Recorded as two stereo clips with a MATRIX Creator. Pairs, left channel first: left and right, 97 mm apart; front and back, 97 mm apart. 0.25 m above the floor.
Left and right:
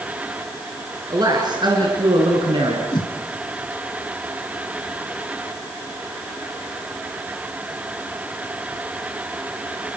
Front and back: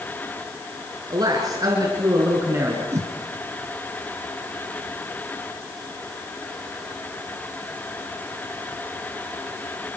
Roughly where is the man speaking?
Behind right.